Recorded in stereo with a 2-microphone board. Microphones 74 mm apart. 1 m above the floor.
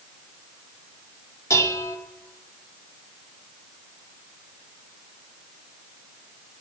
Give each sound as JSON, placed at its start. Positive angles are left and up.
{"t": 1.5, "sound": "dishes clattering", "side_deg": 40, "distance_m": 1.5}